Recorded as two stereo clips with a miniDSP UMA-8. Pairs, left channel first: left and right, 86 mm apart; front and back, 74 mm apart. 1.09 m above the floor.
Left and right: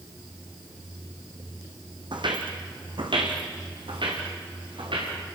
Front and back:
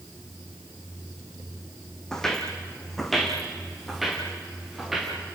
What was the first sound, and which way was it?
Footsteps, 80° right.